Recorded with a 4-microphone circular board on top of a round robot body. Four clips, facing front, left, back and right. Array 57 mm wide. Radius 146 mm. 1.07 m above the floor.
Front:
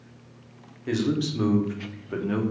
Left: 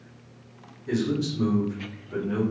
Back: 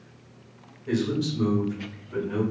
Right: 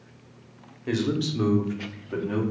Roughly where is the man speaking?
Ahead right.